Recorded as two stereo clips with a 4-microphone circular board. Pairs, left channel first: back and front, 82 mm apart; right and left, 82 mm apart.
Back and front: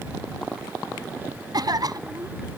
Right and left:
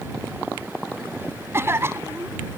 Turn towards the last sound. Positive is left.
turn(degrees=35)